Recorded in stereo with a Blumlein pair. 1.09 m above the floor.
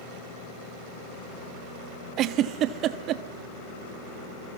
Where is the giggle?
35° right, 1.2 m.